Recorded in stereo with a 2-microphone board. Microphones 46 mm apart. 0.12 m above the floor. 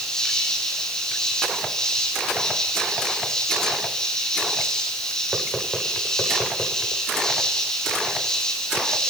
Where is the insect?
10° left (ahead or behind), 4.5 m.